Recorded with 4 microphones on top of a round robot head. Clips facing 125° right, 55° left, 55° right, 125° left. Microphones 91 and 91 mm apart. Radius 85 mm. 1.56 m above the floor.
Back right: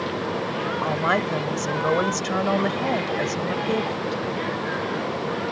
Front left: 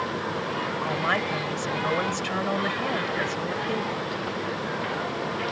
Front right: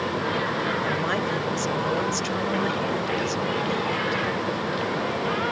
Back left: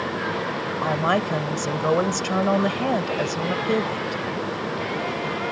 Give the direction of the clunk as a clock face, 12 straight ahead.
No clunk in this recording.